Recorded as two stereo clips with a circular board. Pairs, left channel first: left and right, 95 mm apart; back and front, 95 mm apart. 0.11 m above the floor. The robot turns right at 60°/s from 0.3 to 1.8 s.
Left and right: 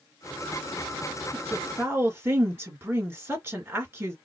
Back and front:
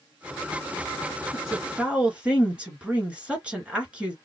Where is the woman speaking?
90° right, 1.8 m; by 4.2 s 60° right, 1.8 m.